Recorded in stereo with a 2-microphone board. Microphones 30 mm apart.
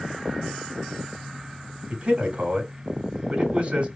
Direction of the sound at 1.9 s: 45° right (ahead or behind).